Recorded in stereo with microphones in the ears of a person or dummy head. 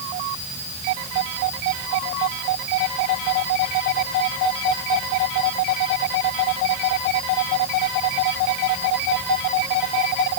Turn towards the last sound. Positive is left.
No sound to turn to.